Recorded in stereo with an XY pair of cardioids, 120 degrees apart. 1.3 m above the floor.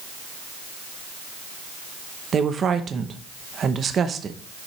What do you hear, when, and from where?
2.3 s a woman speaking: 40° right, 0.8 m